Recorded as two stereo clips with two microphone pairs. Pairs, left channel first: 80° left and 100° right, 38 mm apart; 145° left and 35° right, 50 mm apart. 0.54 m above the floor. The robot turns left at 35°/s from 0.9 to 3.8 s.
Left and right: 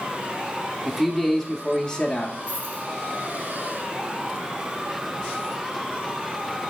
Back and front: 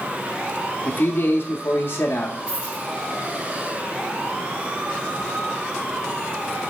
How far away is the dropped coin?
About 4 m.